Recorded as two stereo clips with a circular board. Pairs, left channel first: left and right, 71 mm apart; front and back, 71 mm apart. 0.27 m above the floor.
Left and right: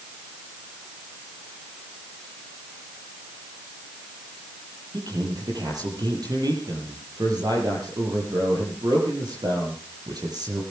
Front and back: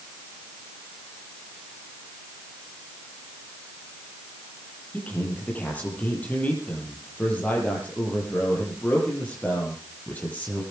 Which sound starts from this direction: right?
A man speaking, at 4.9 s.